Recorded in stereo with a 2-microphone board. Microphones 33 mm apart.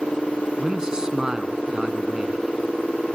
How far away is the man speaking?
About 1.1 m.